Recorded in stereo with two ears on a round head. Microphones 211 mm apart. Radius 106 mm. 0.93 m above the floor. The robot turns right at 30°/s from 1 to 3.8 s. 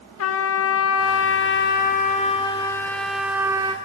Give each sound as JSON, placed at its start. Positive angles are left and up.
{"t": 0.2, "sound": "a trumpet", "azimuth_deg": 115, "distance_m": 1.2}